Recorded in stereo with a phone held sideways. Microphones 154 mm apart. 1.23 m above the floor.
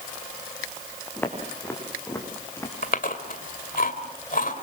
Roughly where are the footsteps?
Centre.